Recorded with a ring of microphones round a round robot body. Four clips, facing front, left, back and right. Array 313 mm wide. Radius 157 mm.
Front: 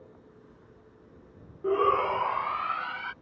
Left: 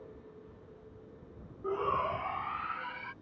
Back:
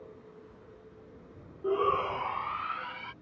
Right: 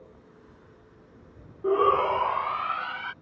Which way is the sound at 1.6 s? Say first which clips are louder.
Right 10 dB, front 4 dB; 75° right.